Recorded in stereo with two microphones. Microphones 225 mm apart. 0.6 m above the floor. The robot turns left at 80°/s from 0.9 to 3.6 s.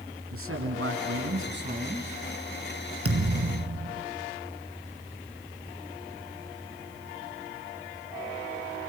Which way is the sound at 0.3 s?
75° right.